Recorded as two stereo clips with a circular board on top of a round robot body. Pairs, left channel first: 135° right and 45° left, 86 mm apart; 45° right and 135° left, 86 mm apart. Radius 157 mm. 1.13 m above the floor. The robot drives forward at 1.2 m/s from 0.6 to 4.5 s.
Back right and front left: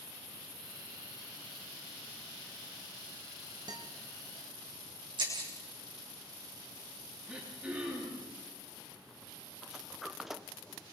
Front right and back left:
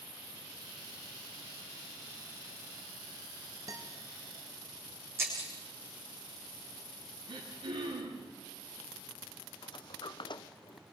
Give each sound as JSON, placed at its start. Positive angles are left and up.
{"t": 3.7, "sound": "a guitar", "azimuth_deg": 80, "distance_m": 1.4}
{"t": 5.2, "sound": "breaking glass", "azimuth_deg": 75, "distance_m": 6.0}
{"t": 7.3, "sound": "throat clearing", "azimuth_deg": 125, "distance_m": 9.0}
{"t": 9.6, "sound": "a sliding door", "azimuth_deg": -40, "distance_m": 1.1}